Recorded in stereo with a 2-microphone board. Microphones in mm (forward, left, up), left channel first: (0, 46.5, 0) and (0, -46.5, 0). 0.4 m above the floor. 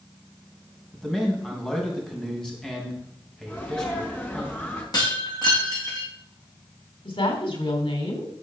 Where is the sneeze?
20° left (ahead or behind), 4 m.